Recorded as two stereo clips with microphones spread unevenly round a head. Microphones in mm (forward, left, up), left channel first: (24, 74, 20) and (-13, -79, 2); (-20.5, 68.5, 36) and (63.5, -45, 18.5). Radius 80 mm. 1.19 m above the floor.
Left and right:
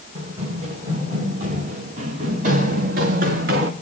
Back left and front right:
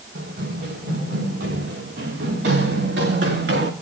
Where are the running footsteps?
50° right, 7.5 m; by 3.7 s 75° right, 3.5 m.